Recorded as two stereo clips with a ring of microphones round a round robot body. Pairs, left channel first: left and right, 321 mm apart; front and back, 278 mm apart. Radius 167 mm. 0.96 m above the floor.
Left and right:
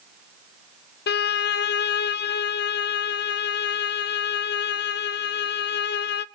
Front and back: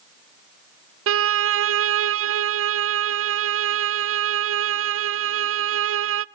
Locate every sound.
1.1 s a violin: 145° left, 0.5 m